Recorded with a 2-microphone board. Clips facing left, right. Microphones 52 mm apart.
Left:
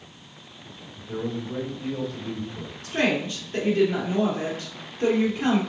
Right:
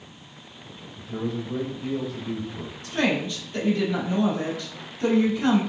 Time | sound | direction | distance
0.9 | a man speaking | 10° left (ahead or behind) | 1.9 m
2.8 | a woman speaking | 35° left (ahead or behind) | 2.5 m